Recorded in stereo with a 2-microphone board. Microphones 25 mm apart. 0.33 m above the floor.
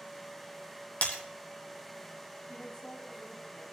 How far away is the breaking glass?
About 1.9 m.